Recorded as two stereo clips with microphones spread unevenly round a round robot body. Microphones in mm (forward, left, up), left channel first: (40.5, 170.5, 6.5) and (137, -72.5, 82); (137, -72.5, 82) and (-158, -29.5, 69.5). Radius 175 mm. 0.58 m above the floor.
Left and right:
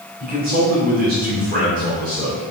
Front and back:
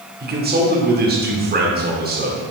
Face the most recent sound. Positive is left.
turn(degrees=-135)